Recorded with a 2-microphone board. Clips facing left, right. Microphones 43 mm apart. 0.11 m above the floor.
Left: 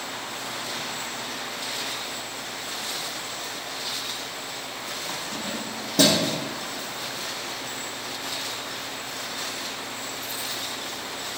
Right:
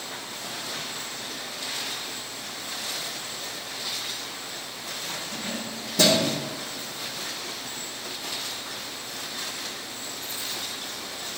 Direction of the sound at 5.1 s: 55° left (ahead or behind).